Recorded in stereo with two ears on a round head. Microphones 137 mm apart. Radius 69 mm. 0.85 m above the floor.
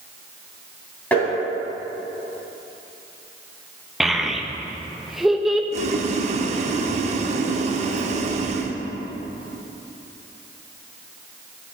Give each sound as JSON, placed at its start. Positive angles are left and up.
{"t": 1.1, "sound": "tapping", "side_deg": 10, "distance_m": 3.0}
{"t": 4.0, "sound": "a child speaking", "side_deg": 0, "distance_m": 0.5}
{"t": 5.7, "sound": "boiling", "side_deg": -50, "distance_m": 0.6}